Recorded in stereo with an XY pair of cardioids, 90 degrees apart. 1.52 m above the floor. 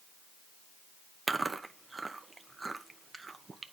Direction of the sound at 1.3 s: 30° right.